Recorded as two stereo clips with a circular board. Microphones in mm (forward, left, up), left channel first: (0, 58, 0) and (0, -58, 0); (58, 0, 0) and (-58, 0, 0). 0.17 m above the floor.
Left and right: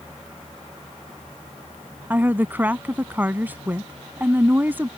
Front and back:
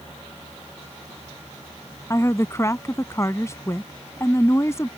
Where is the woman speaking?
35° right.